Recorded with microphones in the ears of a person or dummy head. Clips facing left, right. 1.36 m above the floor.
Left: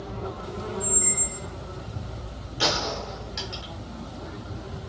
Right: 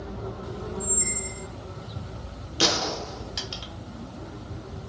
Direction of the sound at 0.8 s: 60° right (ahead or behind).